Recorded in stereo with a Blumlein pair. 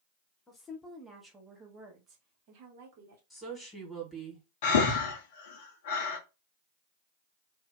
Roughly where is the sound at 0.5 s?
Ahead.